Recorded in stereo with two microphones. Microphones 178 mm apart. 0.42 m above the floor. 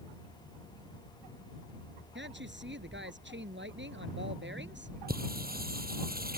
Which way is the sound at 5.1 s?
55° right (ahead or behind).